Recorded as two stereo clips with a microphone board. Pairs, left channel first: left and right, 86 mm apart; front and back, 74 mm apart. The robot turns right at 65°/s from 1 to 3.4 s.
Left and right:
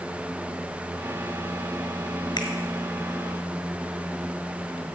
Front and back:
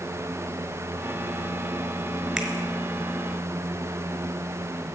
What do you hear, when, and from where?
2.4 s a finger snap: 95° left, 2.5 m; by 2.5 s 100° left, 2.5 m